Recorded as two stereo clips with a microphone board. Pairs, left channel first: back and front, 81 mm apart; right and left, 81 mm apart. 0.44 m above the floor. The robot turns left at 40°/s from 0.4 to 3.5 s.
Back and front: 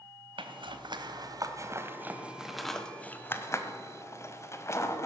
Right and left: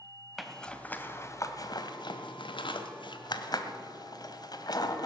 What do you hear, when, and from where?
0.4 s a zipper: straight ahead, 1.1 m; by 5.1 s 125° right, 1.1 m